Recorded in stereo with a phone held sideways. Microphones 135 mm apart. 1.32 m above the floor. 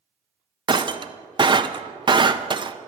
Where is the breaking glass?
35° right (ahead or behind), 0.5 m.